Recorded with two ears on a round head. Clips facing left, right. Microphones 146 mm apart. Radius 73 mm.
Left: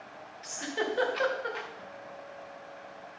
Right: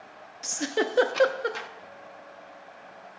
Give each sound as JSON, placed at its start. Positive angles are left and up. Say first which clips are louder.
{"t": 0.4, "sound": "a giggle", "louder": "right 5 dB", "side_deg": -55, "distance_m": 0.5}
{"t": 1.8, "sound": "a guitar", "louder": "left 1 dB", "side_deg": 35, "distance_m": 0.7}